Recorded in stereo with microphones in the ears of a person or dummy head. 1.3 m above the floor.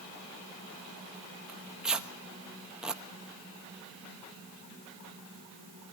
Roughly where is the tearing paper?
Centre.